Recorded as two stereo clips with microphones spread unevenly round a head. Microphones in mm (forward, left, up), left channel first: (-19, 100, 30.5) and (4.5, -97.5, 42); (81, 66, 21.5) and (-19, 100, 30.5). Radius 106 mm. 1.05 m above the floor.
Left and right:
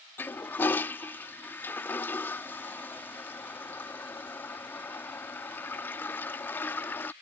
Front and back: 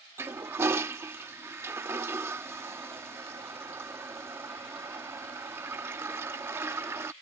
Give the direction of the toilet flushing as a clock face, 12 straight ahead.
6 o'clock.